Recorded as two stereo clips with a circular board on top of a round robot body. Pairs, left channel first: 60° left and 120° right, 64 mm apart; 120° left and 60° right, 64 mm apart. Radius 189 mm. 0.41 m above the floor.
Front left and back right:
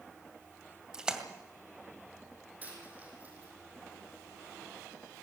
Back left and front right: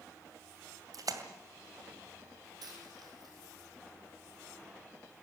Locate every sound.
0.9 s a splash: 40° right, 2 m
2.6 s a dropped coin: 55° right, 5.5 m